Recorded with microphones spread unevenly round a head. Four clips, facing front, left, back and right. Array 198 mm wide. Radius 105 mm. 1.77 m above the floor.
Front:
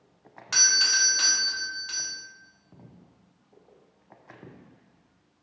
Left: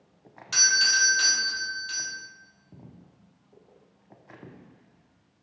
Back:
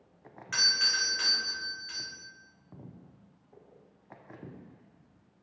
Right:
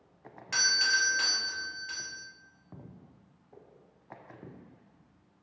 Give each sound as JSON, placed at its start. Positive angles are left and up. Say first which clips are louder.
{"t": 0.5, "sound": "a doorbell", "louder": "left 3 dB, front 5 dB", "azimuth_deg": -15, "distance_m": 0.6}